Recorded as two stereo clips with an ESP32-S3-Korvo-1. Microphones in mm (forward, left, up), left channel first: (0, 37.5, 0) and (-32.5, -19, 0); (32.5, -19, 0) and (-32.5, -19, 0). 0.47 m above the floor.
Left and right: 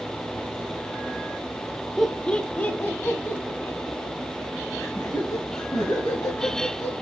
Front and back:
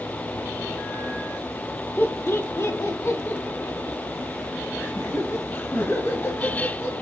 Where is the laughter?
25° right, 0.8 m; by 6.9 s 50° left, 3 m.